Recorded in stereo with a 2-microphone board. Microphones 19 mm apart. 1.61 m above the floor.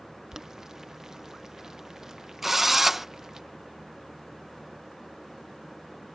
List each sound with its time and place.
0.3 s boiling: 25° right (ahead or behind)
2.4 s a drill: 15° right (ahead or behind)